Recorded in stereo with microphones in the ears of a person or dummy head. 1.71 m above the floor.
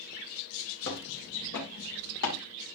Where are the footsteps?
75° left (ahead or behind), 8 m.